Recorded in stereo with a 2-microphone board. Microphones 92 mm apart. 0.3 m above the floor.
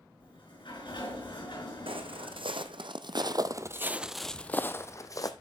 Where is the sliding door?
65° left (ahead or behind), 7.5 m.